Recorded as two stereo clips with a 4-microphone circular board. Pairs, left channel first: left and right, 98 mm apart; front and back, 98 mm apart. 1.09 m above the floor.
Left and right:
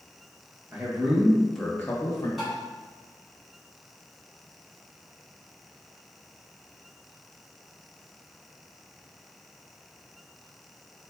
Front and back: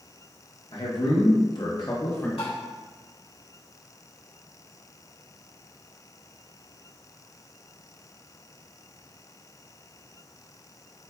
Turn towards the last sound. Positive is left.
turn(degrees=0)